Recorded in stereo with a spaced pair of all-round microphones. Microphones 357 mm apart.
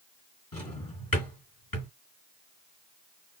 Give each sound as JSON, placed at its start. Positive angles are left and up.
{"t": 0.5, "sound": "a drawer", "side_deg": 65, "distance_m": 3.0}